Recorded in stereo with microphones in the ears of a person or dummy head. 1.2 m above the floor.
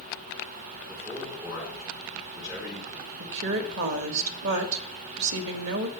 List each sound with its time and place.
0.9 s a man speaking: 5° right (ahead or behind), 4 m
3.2 s a woman speaking: 70° right (ahead or behind), 1.3 m